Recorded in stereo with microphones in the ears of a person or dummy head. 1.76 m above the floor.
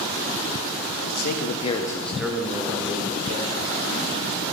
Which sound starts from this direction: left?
A man speaking, at 1.0 s.